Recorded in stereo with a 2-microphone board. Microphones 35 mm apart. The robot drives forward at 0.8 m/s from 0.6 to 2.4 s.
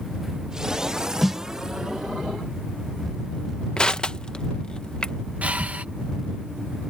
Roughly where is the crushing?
Left.